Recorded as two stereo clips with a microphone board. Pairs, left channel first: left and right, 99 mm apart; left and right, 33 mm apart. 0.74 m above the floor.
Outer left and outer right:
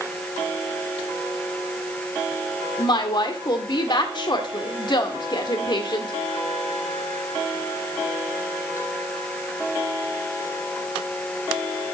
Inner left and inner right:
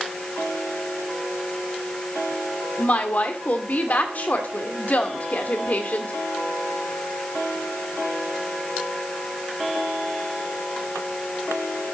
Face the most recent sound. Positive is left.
turn(degrees=50)  # may be behind; listen again after turning